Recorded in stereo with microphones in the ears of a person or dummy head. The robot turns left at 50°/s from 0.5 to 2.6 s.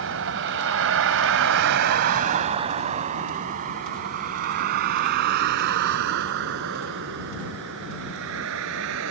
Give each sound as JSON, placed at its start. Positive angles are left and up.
{"t": 0.0, "sound": "a vehicle", "side_deg": -75}